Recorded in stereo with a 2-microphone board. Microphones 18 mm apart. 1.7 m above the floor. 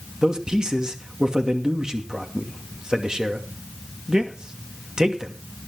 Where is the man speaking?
45° right (ahead or behind), 2.5 m.